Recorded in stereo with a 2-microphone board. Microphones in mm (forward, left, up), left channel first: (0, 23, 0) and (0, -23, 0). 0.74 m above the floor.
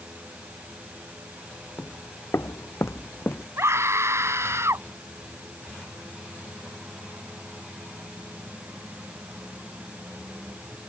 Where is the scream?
80° right.